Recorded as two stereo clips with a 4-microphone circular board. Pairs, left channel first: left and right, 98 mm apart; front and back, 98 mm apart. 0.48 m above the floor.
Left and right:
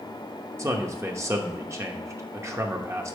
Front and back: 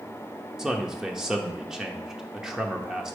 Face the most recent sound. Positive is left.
turn(degrees=-100)